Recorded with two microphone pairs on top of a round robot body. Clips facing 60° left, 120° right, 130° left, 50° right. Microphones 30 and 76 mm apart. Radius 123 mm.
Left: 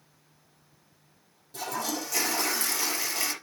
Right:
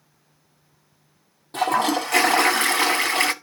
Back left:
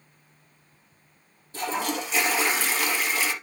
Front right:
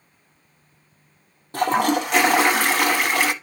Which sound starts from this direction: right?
A toilet flushing, at 1.5 s.